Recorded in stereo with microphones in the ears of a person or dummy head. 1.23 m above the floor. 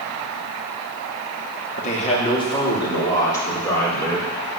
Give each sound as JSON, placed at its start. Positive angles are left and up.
{"t": 1.8, "sound": "a man speaking", "side_deg": 40, "distance_m": 2.5}